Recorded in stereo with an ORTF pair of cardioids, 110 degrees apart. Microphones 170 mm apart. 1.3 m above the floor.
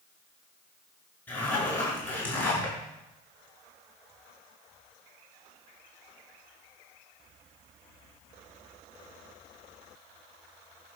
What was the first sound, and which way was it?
A zipper, 10° left.